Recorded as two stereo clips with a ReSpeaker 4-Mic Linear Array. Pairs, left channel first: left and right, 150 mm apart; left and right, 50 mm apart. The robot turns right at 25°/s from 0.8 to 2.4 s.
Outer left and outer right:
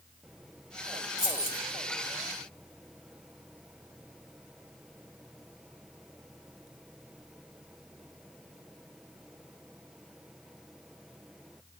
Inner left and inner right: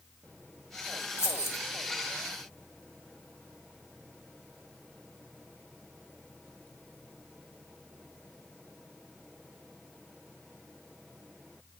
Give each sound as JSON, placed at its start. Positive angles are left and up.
{"t": 1.2, "sound": "keys jangling", "side_deg": 65, "distance_m": 1.1}